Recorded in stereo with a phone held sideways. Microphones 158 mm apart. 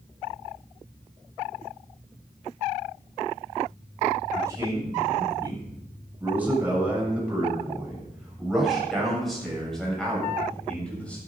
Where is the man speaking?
20° right (ahead or behind), 7.5 m; by 11.2 s 10° left (ahead or behind), 8 m.